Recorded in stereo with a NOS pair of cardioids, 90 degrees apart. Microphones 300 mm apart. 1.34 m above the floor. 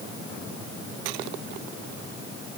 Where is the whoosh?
I don't hear a whoosh.